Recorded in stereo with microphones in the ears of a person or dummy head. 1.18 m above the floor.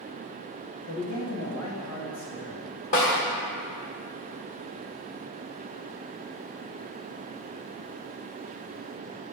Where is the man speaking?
70° left (ahead or behind), 1.0 m; by 2.6 s 60° left (ahead or behind), 1.6 m.